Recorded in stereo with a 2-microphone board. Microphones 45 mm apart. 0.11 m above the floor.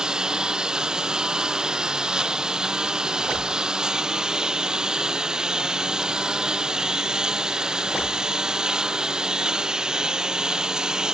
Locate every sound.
0.0 s a lawn mower: 15° right (ahead or behind)